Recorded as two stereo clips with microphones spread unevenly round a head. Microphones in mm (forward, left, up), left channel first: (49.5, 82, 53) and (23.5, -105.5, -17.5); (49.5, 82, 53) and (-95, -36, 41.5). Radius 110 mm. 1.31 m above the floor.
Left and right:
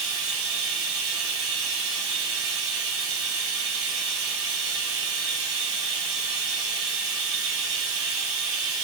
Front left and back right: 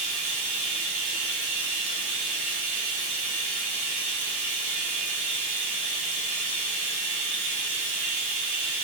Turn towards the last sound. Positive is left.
turn(degrees=-95)